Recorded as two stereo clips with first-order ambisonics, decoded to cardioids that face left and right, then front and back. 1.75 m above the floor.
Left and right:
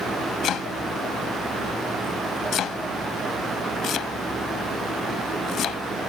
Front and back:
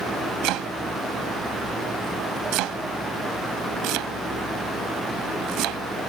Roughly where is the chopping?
Behind left.